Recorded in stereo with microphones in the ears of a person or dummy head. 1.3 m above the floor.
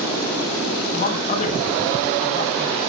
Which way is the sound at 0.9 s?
45° left (ahead or behind).